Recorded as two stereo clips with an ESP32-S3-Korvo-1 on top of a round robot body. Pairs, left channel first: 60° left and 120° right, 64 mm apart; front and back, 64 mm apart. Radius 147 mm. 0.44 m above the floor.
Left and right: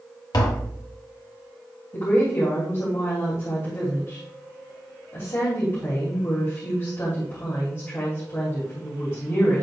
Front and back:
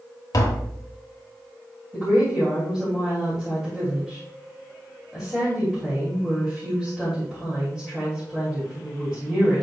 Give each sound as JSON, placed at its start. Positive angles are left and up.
{"t": 0.3, "sound": "tapping", "azimuth_deg": 35, "distance_m": 1.3}
{"t": 1.9, "sound": "a woman speaking", "azimuth_deg": 100, "distance_m": 3.0}